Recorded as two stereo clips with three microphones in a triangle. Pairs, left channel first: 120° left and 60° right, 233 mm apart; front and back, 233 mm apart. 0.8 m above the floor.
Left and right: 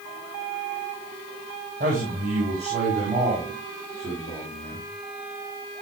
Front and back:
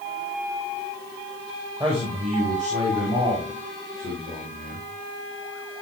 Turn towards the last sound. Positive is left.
turn(degrees=-140)